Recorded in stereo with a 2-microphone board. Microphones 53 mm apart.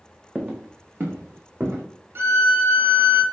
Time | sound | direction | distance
0.3 | footsteps | 25° right (ahead or behind) | 0.6 m
2.1 | a violin | 50° right (ahead or behind) | 0.6 m